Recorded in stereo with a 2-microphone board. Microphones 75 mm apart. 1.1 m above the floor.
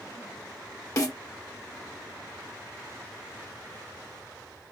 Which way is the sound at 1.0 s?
50° left (ahead or behind).